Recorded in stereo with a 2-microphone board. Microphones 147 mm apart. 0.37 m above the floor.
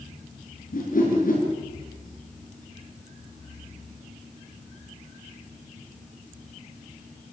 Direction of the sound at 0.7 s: 70° left (ahead or behind).